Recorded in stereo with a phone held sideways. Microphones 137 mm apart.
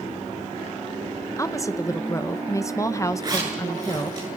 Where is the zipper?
30° right (ahead or behind), 9 m.